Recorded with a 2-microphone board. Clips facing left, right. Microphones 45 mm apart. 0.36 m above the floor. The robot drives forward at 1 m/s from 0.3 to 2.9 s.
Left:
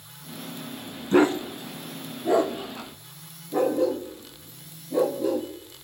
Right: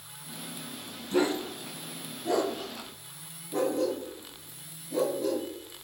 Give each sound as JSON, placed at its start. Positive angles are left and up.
{"t": 1.1, "sound": "a dog barking", "side_deg": 55, "distance_m": 0.9}